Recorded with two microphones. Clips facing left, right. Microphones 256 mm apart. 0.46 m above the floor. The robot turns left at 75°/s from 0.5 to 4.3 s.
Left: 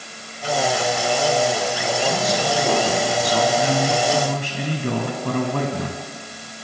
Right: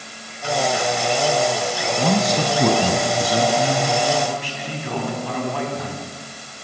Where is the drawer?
No drawer in this recording.